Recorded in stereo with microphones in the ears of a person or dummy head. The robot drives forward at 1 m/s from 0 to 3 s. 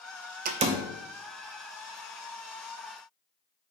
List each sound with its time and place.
0.5 s a door slam: 45° right (ahead or behind), 0.5 m; by 0.9 s 25° right (ahead or behind), 0.9 m